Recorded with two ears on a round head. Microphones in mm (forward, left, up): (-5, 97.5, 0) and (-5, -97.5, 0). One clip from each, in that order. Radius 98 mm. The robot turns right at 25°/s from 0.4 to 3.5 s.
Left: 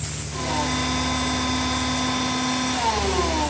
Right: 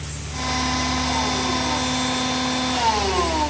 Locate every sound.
Only background noise.